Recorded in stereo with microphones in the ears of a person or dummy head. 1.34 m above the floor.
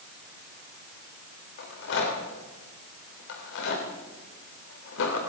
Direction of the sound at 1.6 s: 70° left (ahead or behind).